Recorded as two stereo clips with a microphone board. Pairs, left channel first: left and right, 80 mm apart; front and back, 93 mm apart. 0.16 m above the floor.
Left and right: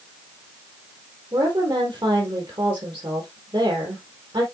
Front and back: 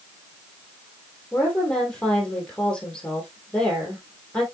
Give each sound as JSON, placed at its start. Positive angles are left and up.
{"t": 1.3, "sound": "a woman speaking", "azimuth_deg": -80, "distance_m": 4.0}